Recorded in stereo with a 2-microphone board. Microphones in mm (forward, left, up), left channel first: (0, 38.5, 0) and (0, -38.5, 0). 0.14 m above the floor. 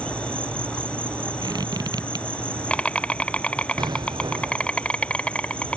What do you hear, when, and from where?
0.0 s an insect: 15° left (ahead or behind)
1.4 s a squeak: 65° right (ahead or behind)
3.8 s an explosion: 65° right (ahead or behind)